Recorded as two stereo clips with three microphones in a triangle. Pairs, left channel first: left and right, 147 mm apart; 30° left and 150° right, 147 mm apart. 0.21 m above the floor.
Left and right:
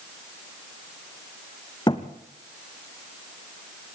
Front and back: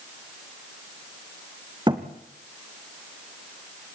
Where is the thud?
150° left, 2 m.